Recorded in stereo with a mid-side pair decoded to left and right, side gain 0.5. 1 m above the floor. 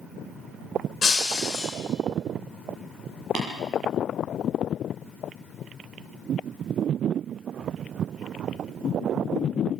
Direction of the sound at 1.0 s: 30° left.